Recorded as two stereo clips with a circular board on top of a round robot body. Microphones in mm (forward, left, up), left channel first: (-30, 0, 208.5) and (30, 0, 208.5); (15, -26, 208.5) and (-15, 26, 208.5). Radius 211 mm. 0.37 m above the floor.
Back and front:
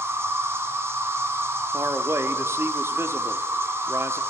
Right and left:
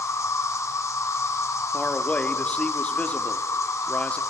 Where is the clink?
No clink in this recording.